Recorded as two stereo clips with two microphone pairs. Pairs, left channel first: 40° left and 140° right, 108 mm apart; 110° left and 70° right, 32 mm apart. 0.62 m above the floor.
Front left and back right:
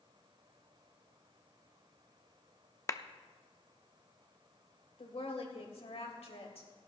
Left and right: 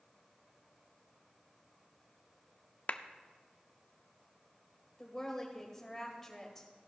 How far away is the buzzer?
No buzzer in this recording.